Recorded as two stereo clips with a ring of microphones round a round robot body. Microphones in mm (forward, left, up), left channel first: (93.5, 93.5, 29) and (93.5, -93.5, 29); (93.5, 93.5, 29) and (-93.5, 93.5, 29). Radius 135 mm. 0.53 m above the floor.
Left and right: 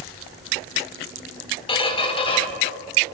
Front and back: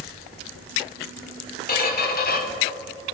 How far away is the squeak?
About 1.1 m.